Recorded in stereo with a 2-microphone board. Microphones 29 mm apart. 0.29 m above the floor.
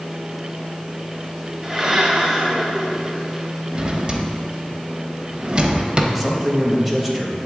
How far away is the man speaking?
About 1.0 m.